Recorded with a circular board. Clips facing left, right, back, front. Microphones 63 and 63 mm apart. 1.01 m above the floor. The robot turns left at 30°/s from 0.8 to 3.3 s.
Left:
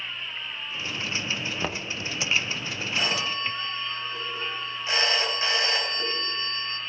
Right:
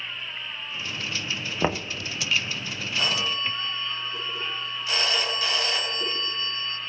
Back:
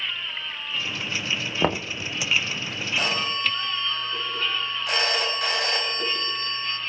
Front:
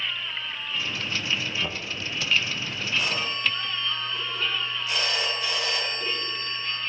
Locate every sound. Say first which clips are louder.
1.6 s knocking: right 5 dB, back 8 dB; 155° right, 0.6 m; by 1.9 s 165° right, 0.6 m
3.0 s a phone ringing: right 1 dB, back 2 dB; 165° left, 4.5 m; by 6.8 s 155° left, 4.5 m